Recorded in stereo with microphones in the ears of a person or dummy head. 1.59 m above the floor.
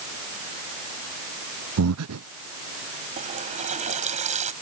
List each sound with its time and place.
1.8 s breathing: 85° right
3.2 s a running tap: 35° right (ahead or behind)